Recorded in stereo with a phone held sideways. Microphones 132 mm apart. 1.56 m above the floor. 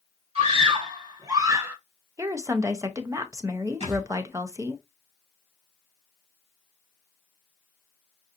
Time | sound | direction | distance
0.3 | a scream | 45° right (ahead or behind) | 1.9 m
2.2 | a woman speaking | 20° right (ahead or behind) | 0.6 m
3.8 | a thud | 40° right (ahead or behind) | 2.5 m